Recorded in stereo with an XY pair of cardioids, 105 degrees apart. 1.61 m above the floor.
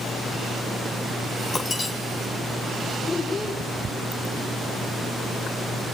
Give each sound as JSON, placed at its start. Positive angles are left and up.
{"t": 1.5, "sound": "breaking glass", "azimuth_deg": 35, "distance_m": 4.0}
{"t": 3.0, "sound": "a child speaking", "azimuth_deg": 30, "distance_m": 6.5}